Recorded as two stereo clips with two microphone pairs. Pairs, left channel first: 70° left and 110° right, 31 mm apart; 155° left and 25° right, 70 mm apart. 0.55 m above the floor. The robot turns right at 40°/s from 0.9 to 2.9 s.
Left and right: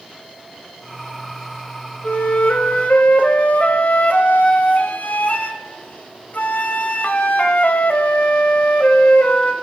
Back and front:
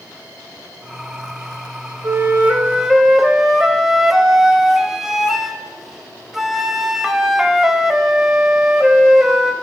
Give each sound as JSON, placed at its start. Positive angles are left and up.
{"t": 2.0, "sound": "a flute", "azimuth_deg": 25, "distance_m": 0.7}